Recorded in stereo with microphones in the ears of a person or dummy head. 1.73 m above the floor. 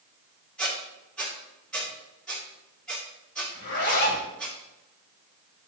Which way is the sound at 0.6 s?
10° left (ahead or behind).